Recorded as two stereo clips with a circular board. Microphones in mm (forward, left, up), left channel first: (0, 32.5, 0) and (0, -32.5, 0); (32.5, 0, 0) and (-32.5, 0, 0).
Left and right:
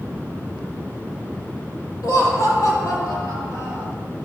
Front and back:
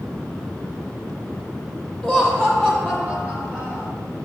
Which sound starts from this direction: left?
Laughter, at 2.0 s.